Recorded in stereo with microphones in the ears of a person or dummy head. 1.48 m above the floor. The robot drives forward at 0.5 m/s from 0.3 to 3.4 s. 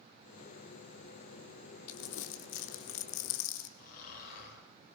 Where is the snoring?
55° left (ahead or behind), 9.5 m.